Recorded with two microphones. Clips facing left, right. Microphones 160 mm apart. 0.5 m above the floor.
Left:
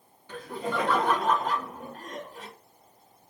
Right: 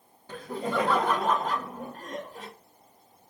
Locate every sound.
0.3 s laughter: 45° right (ahead or behind), 1.8 m